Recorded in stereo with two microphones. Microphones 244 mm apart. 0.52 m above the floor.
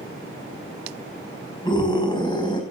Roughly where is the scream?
Centre.